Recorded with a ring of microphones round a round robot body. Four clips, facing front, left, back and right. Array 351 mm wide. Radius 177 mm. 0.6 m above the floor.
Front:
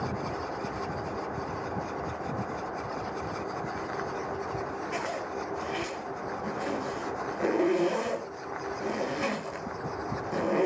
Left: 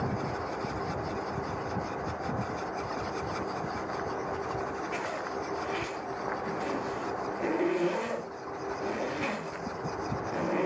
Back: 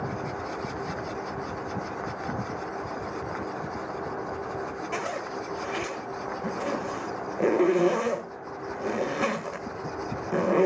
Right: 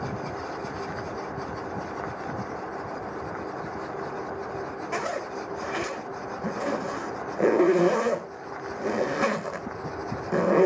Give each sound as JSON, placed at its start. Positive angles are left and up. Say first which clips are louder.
{"t": 4.9, "sound": "a zipper", "louder": "right 4 dB, back 2 dB", "azimuth_deg": -115, "distance_m": 1.9}